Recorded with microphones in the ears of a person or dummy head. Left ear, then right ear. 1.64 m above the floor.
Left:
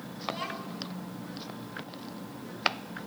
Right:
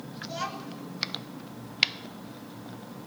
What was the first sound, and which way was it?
A child speaking, 60° right (ahead or behind).